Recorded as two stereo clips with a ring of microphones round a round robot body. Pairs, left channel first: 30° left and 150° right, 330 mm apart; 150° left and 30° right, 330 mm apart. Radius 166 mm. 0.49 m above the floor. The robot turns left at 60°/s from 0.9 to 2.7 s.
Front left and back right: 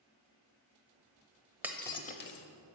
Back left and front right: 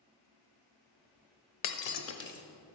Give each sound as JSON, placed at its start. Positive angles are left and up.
{"t": 1.6, "sound": "breaking glass", "azimuth_deg": 125, "distance_m": 0.8}